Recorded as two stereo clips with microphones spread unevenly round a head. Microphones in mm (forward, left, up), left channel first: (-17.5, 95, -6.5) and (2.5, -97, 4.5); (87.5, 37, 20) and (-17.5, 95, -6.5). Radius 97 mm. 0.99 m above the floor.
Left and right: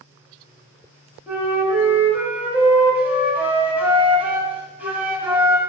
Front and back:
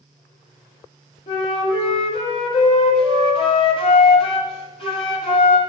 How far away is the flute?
About 1.4 m.